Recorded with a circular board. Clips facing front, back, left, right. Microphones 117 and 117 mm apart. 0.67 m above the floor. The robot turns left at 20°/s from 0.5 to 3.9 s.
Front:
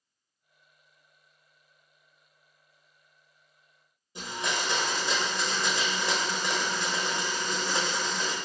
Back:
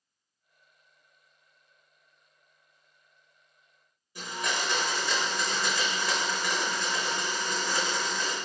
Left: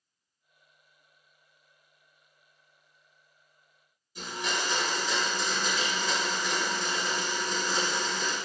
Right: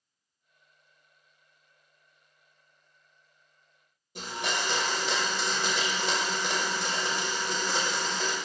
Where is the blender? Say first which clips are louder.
Even, right 1 dB; 65° right, 0.8 m.